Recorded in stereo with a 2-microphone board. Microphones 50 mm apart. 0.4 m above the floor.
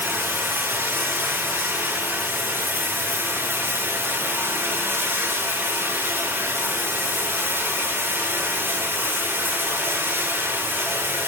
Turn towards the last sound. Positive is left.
turn(degrees=-60)  # may be behind; listen again after turning